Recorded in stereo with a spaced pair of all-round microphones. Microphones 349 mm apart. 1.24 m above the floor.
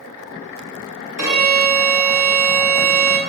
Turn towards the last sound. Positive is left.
turn(degrees=65)  # may be behind; listen again after turning